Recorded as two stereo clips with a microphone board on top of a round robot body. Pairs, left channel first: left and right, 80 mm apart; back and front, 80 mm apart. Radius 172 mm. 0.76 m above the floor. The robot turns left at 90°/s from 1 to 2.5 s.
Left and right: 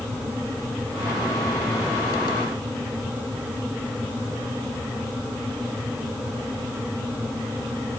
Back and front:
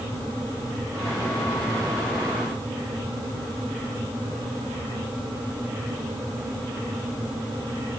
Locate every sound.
Only background noise.